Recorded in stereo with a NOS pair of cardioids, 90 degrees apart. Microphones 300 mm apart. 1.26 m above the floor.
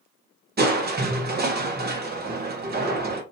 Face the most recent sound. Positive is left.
turn(degrees=-35)